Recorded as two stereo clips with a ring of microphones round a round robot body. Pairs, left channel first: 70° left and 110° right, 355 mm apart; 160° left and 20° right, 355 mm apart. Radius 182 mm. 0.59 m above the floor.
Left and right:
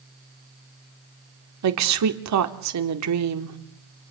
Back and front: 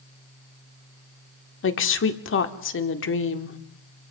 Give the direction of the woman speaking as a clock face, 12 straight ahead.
5 o'clock.